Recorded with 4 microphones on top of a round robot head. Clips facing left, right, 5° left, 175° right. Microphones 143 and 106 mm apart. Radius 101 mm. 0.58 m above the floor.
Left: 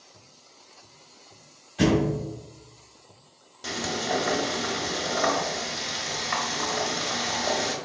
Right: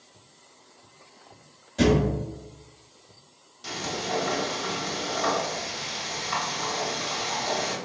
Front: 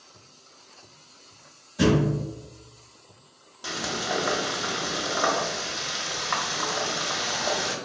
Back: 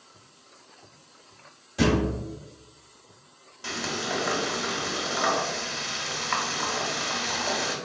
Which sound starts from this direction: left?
Frying, at 3.6 s.